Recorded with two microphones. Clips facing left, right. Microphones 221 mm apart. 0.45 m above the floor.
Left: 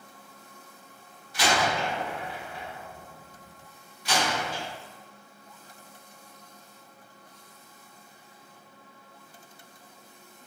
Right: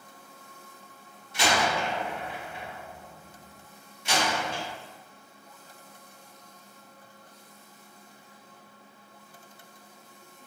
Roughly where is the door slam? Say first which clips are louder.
Even; right.